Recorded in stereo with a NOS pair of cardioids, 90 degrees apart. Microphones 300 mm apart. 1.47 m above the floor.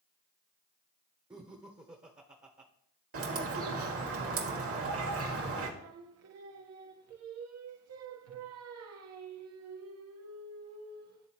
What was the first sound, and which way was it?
Laughter, 15° right.